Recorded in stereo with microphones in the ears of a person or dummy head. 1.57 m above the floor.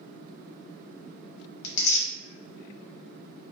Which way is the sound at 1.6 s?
40° left (ahead or behind).